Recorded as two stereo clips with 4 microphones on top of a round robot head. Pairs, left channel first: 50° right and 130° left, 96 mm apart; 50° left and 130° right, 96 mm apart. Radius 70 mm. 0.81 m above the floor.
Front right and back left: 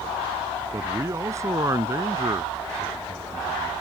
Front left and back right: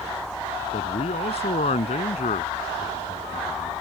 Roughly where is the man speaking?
Left.